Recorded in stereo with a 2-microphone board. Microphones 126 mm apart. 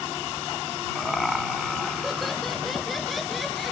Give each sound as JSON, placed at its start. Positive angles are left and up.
{"t": 0.9, "sound": "laughter", "side_deg": 0}